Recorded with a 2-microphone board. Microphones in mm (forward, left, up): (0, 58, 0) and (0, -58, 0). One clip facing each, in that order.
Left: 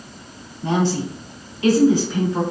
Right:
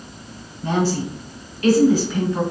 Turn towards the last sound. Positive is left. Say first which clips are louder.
# even
turn(degrees=20)  # may be behind; listen again after turning